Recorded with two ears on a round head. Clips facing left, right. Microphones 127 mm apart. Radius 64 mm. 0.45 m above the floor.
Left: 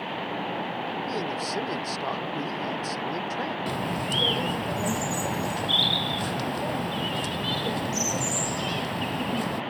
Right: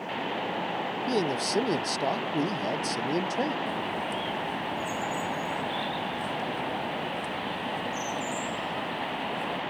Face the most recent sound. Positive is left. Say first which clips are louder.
# left 2 dB
turn(degrees=80)